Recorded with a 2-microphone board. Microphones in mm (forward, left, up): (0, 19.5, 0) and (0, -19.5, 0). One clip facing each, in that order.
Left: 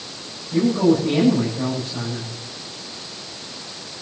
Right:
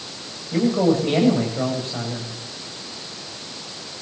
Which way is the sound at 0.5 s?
50° right (ahead or behind).